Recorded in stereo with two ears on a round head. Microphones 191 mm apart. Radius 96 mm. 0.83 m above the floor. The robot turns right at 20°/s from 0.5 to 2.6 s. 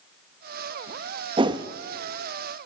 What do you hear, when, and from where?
1.4 s a whoosh: 25° right (ahead or behind), 0.9 m; by 1.7 s 20° right (ahead or behind), 0.9 m